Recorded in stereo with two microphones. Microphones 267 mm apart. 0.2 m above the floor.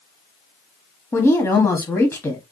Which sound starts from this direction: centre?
A woman speaking, at 1.1 s.